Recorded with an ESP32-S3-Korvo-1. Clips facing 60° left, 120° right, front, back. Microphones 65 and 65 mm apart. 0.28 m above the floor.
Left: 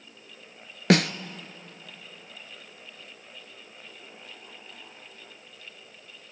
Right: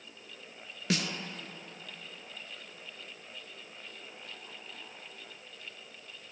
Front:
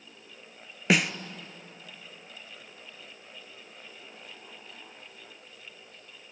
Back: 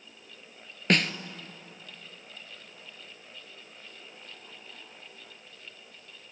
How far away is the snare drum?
About 0.8 m.